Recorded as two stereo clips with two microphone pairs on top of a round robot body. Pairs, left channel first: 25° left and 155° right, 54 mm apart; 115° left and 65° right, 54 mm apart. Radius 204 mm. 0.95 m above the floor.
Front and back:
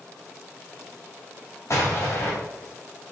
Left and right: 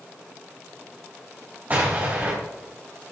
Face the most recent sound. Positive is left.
turn(degrees=-10)